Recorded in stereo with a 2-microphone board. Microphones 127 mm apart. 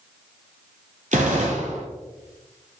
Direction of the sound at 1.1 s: 75° right (ahead or behind).